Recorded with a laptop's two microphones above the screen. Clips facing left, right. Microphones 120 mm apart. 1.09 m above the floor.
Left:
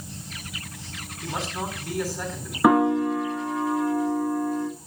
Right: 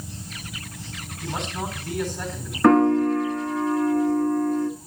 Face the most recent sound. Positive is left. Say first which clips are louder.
# right 3 dB
turn(degrees=10)  # may be behind; listen again after turning